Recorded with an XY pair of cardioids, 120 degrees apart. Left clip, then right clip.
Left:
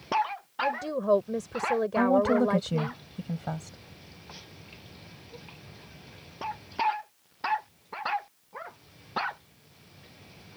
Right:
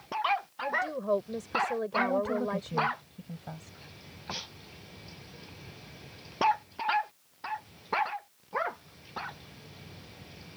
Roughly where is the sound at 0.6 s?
Ahead left.